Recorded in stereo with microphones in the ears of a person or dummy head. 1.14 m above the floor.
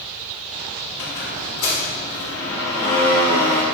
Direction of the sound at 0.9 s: 65° left (ahead or behind).